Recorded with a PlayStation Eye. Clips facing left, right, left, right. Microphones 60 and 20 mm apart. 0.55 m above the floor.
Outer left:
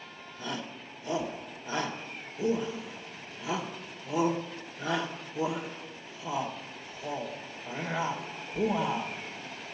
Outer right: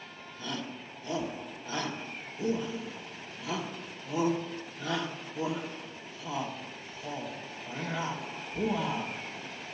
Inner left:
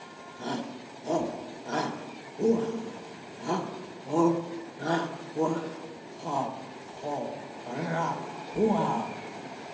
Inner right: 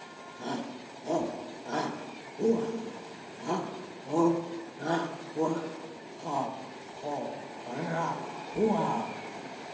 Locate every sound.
0.4 s a shout: 20° left (ahead or behind), 1.7 m